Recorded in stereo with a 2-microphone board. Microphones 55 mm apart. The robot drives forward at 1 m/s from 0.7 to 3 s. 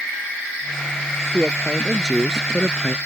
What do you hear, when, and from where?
1.3 s a woman speaking: 5° right (ahead or behind); by 3.0 s 10° right (ahead or behind)